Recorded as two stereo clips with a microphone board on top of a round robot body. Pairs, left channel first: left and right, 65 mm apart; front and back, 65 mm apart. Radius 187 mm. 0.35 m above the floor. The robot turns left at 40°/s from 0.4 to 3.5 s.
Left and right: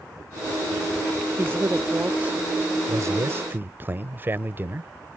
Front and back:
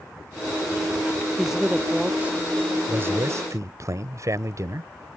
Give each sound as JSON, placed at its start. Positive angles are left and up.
{"t": 1.4, "sound": "a man speaking", "azimuth_deg": -95}
{"t": 2.9, "sound": "a man speaking", "azimuth_deg": -120}